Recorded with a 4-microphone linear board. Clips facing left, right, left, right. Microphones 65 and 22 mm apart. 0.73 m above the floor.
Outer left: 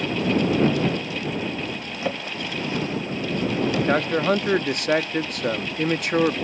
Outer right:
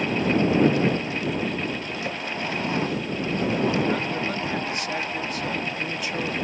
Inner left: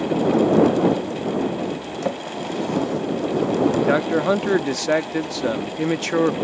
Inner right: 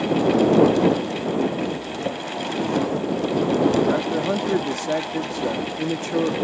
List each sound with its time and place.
2.0 s a drawer: 25° left (ahead or behind)
3.9 s a man speaking: 55° left (ahead or behind)